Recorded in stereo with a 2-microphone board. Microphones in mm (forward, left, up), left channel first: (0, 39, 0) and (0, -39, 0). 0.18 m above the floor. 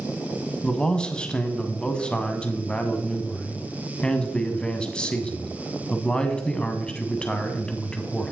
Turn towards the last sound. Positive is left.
turn(degrees=10)  # may be behind; listen again after turning